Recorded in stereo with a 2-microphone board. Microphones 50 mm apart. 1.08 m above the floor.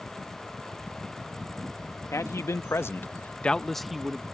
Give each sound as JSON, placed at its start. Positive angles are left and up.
{"t": 2.1, "sound": "a man speaking", "side_deg": 80}